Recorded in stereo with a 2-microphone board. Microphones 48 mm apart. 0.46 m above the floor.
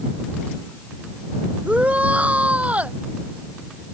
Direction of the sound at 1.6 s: 30° right (ahead or behind).